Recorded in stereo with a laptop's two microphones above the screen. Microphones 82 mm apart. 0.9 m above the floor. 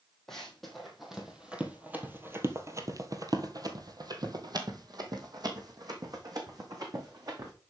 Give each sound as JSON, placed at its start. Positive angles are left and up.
{"t": 0.3, "sound": "running footsteps", "side_deg": 5, "distance_m": 1.9}